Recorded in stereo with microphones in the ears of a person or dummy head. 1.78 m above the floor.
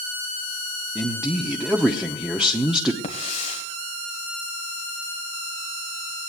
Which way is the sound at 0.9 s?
5° right (ahead or behind).